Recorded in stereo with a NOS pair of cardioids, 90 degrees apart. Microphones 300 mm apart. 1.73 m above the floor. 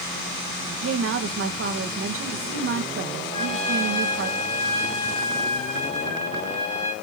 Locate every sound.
0.7 s a woman speaking: 45° right, 1.8 m
3.3 s a trumpet: 20° left, 3.5 m